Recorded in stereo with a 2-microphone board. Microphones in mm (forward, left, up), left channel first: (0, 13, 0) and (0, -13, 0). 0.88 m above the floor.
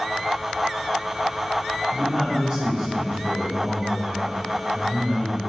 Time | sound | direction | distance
1.9 | a man speaking | 35° right (ahead or behind) | 3 m